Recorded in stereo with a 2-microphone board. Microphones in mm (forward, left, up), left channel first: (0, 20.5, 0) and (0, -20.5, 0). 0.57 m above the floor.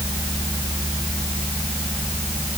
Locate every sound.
Only background noise.